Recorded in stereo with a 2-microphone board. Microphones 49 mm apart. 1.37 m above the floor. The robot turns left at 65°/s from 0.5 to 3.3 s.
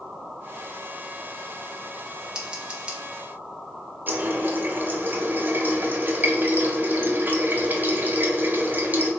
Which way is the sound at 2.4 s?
15° right (ahead or behind).